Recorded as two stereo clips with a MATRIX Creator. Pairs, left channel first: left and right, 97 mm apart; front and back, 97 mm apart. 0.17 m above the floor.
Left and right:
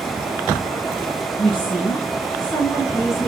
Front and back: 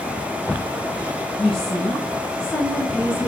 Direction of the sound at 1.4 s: 85° left.